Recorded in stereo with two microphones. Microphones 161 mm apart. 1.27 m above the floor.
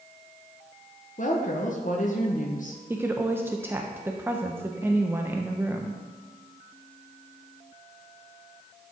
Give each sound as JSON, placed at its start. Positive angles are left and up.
{"t": 1.2, "sound": "a woman speaking", "side_deg": 55, "distance_m": 0.9}
{"t": 2.9, "sound": "a woman speaking", "side_deg": -15, "distance_m": 0.5}